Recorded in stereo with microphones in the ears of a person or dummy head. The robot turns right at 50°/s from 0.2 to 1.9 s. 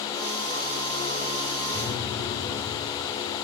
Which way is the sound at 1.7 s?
75° right (ahead or behind).